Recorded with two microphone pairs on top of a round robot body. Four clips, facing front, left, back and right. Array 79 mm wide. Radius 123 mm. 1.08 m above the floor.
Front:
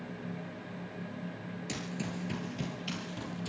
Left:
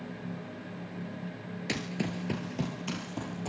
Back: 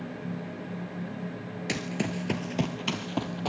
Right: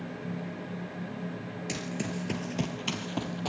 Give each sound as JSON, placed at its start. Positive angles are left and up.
{"t": 1.7, "sound": "running footsteps", "azimuth_deg": 125, "distance_m": 1.2}